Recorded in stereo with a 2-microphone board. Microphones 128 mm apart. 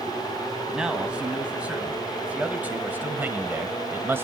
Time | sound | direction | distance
0.7 | a man speaking | 5° right (ahead or behind) | 2 m